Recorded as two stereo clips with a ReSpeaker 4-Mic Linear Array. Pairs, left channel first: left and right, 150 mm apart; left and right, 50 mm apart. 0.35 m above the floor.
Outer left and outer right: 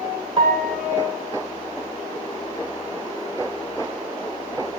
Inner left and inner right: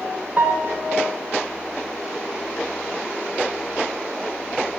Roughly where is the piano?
Right.